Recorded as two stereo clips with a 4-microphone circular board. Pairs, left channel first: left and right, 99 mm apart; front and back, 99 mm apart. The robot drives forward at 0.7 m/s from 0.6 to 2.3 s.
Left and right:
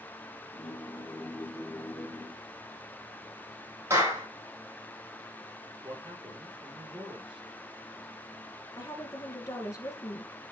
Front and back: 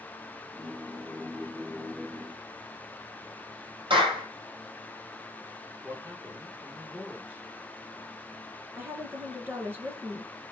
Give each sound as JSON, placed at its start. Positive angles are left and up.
{"t": 3.9, "sound": "a clap", "azimuth_deg": -155, "distance_m": 4.0}
{"t": 5.8, "sound": "a man speaking", "azimuth_deg": -110, "distance_m": 3.0}
{"t": 8.8, "sound": "a woman speaking", "azimuth_deg": 125, "distance_m": 1.8}